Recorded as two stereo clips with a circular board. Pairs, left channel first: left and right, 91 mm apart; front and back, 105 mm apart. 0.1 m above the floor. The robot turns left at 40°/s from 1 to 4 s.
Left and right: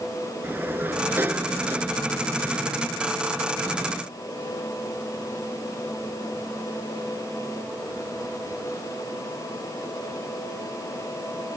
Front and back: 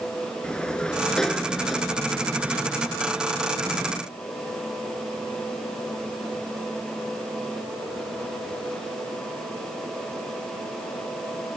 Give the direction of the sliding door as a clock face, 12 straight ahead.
2 o'clock.